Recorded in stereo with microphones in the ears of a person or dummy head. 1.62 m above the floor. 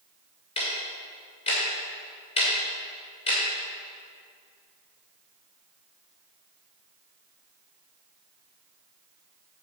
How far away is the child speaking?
No child speaking in this recording.